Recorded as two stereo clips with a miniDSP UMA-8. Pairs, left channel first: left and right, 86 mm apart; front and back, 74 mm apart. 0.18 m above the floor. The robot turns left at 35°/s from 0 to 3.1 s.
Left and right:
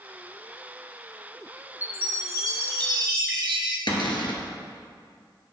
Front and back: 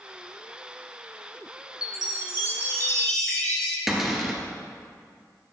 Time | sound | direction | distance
1.8 | a chime | 25° right | 2.5 m
3.9 | a cupboard door | 95° left | 2 m